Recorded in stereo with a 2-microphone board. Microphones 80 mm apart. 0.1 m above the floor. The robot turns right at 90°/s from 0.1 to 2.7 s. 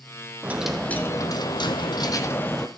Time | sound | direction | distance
0.4 | a dropped coin | 25° right | 1.4 m